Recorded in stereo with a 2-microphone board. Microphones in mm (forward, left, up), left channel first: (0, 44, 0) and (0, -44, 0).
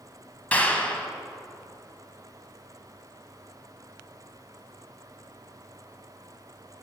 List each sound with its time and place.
0.5 s a clap: 15° left (ahead or behind), 0.8 m